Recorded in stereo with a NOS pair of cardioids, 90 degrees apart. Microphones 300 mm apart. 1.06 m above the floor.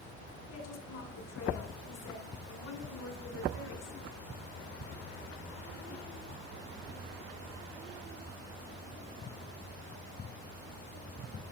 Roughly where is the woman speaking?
Ahead left.